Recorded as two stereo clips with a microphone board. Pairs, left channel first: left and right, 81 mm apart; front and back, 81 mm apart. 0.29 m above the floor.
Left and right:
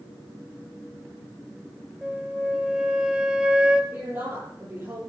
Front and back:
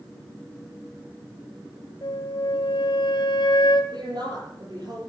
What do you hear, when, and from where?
2.0 s a flute: 10° right, 1.6 m
3.9 s a woman speaking: 150° right, 9.5 m